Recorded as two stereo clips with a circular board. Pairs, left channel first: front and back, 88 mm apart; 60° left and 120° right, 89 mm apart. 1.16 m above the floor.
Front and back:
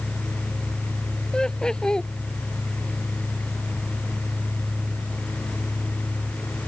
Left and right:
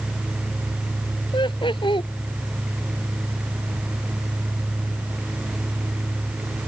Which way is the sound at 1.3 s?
80° left.